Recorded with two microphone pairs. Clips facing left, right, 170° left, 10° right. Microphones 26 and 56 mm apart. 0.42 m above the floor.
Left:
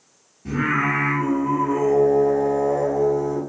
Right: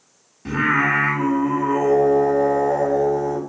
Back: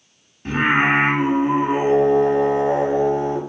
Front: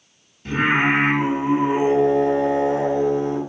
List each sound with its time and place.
0.5 s singing: 135° right, 1.1 m